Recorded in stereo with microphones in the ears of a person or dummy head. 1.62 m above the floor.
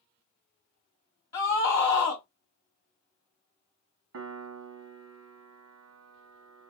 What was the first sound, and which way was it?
A scream, 15° left (ahead or behind).